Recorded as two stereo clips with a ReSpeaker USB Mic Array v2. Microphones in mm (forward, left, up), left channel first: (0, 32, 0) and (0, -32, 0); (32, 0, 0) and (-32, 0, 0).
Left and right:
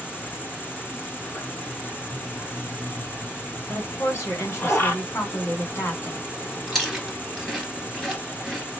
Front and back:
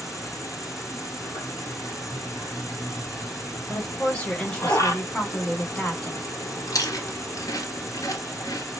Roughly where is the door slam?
No door slam in this recording.